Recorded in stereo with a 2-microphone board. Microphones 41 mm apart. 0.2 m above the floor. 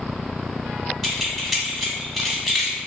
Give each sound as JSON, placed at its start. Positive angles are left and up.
{"t": 1.0, "sound": "keys jangling", "side_deg": 5, "distance_m": 0.8}